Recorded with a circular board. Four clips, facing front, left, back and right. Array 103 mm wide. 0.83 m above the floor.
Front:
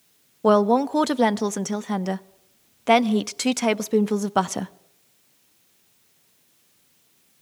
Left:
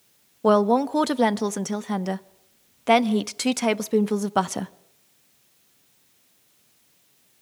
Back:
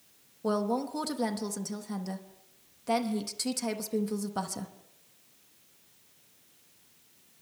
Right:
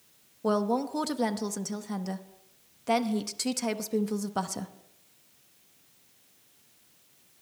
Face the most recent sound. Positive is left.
turn(degrees=35)